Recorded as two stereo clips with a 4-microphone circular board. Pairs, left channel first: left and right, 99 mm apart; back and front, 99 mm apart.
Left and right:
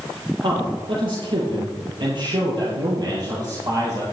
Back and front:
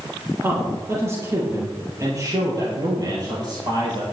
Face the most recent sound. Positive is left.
turn(degrees=-40)